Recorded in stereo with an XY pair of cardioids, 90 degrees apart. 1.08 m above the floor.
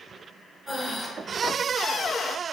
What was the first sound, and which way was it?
Breathing, 15° left.